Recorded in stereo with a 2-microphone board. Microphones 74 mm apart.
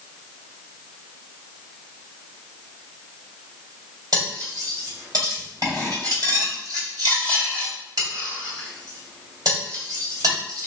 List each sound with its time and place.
4.1 s cutlery clinking: 60° right (ahead or behind), 1.9 m